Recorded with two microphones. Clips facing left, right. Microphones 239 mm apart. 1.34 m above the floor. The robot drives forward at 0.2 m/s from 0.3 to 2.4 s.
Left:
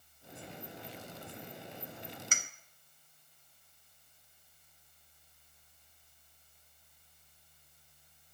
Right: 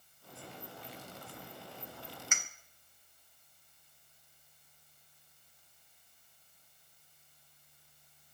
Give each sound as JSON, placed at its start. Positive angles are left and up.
{"t": 2.3, "sound": "a clink", "side_deg": 40, "distance_m": 0.5}